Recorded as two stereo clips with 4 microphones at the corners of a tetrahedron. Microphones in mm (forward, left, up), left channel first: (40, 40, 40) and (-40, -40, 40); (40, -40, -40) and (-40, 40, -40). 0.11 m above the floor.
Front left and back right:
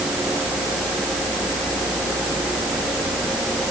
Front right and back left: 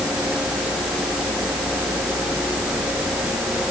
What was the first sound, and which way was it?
Only background noise.